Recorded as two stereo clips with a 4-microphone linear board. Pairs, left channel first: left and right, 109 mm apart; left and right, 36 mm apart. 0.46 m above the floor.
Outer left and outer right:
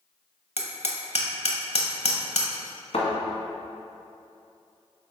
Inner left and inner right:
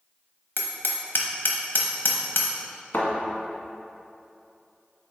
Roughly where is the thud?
Left.